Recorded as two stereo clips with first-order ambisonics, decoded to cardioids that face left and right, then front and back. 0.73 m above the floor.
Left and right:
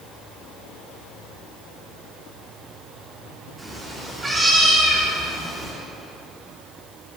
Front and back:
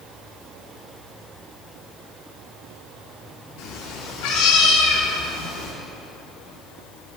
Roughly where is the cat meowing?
Ahead.